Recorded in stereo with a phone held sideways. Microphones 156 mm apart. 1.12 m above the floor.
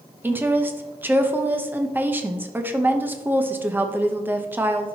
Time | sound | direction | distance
0.2 | a woman speaking | 10° right (ahead or behind) | 0.9 m